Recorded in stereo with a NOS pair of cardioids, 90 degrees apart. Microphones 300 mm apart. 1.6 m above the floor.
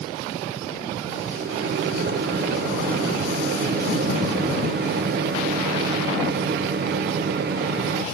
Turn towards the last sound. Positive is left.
turn(degrees=-35)